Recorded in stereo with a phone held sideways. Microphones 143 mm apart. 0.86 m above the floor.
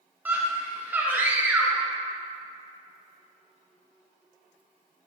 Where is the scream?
10° right (ahead or behind), 0.8 m.